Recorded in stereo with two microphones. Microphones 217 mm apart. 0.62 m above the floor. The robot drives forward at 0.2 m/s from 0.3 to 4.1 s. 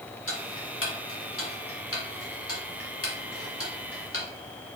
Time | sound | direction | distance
0.3 | ticking | 65° left (ahead or behind) | 1.3 m